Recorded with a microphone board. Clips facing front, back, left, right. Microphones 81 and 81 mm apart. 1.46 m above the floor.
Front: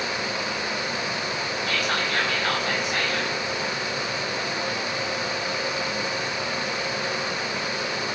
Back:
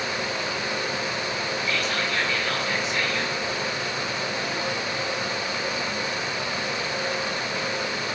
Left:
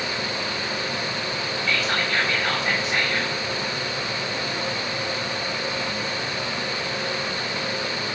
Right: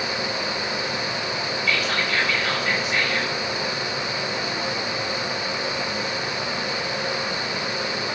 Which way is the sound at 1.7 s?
25° left.